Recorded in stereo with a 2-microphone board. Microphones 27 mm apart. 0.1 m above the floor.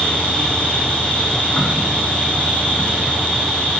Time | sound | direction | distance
0.0 | an insect | 50° left (ahead or behind) | 7 m